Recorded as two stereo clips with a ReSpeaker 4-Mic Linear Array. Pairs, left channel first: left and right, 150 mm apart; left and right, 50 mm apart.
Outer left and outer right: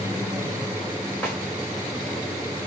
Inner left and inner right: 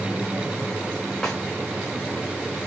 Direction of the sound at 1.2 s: 15° left (ahead or behind).